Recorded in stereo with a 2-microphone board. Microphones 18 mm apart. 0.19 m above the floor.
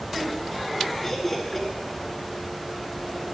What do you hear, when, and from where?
1.0 s laughter: 15° left (ahead or behind), 2.5 m